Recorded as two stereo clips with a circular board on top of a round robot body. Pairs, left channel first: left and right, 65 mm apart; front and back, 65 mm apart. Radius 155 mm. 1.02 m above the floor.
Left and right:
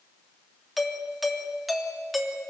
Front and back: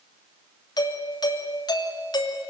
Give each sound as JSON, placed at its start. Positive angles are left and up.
{"t": 0.8, "sound": "a doorbell", "azimuth_deg": 0, "distance_m": 3.0}